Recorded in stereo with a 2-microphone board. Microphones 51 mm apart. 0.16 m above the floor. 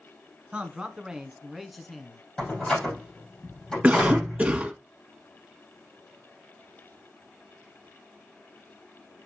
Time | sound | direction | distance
0.5 | a man speaking | 25° right (ahead or behind) | 1.1 m
2.4 | a door slam | 15° left (ahead or behind) | 4.5 m
3.8 | a cough | 25° right (ahead or behind) | 1.4 m